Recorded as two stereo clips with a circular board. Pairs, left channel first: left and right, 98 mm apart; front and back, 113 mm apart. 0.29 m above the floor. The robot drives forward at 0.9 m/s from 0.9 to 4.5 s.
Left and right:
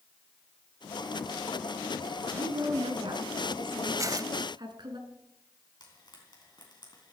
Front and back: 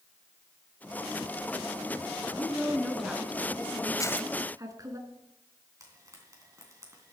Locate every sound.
2.4 s a woman speaking: 75° right, 2.5 m; by 5.0 s 125° right, 2.5 m
4.0 s tearing paper: 45° right, 0.6 m; by 4.3 s 90° right, 0.5 m
5.8 s frying: 120° left, 3.5 m